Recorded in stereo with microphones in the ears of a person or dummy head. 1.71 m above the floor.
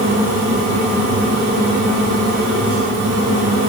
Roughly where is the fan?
Right.